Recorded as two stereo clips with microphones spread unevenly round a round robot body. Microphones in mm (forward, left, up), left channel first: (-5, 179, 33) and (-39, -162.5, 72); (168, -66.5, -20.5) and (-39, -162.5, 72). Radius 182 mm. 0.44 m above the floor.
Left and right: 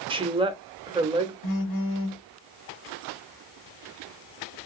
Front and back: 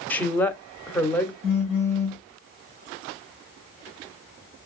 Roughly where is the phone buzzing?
Left.